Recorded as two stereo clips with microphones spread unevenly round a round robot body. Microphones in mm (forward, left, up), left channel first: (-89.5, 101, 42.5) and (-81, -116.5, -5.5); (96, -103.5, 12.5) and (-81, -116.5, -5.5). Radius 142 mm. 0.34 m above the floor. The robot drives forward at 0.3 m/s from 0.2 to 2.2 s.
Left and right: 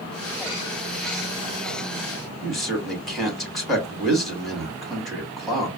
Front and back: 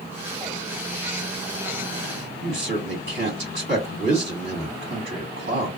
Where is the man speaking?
170° right, 2.5 m.